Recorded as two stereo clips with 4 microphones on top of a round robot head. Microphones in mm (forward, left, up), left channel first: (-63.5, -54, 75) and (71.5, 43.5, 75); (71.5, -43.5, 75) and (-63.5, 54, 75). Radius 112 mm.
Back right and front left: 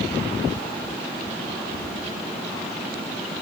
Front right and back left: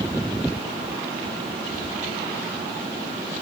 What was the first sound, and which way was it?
Only background noise.